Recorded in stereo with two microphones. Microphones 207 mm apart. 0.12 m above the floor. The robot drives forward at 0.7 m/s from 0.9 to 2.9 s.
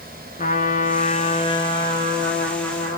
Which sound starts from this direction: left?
A trumpet, at 0.4 s.